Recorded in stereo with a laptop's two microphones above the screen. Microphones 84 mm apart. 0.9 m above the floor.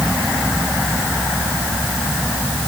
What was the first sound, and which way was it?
Only background noise.